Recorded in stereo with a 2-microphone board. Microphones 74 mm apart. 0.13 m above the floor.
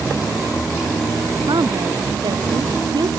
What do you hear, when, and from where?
1.5 s a woman speaking: 80° right